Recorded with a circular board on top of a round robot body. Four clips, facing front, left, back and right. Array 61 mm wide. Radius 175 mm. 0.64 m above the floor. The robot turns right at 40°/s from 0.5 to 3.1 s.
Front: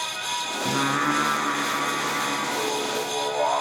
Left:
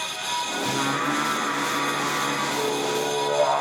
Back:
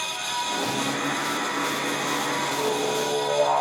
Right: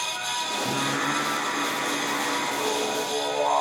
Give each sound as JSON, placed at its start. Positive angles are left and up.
{"t": 0.7, "sound": "singing", "azimuth_deg": -5, "distance_m": 1.8}